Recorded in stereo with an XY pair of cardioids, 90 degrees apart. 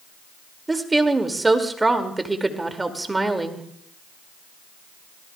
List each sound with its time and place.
0.7 s a woman speaking: 20° right, 2 m